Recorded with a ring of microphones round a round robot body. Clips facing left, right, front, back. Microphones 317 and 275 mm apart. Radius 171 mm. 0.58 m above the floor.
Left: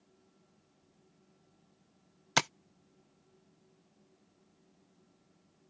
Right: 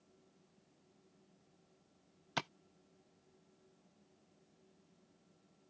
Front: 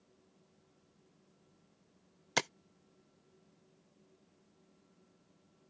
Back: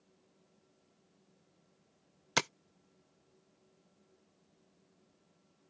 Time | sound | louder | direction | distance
2.4 | tapping | left 8 dB, back 1 dB | 100° left | ?